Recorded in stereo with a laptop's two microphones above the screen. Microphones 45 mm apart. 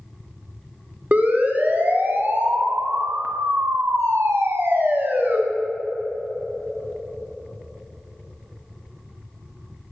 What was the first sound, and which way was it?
A siren, 35° right (ahead or behind).